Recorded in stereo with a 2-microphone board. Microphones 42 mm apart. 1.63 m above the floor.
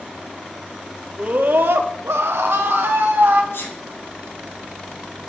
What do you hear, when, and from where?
1.2 s a scream: 40° right (ahead or behind), 1.0 m; by 3.4 s 60° right (ahead or behind), 1.7 m
3.5 s a sneeze: 85° left, 6 m